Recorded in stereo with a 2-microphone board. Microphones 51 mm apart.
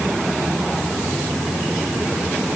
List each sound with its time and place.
Only background noise.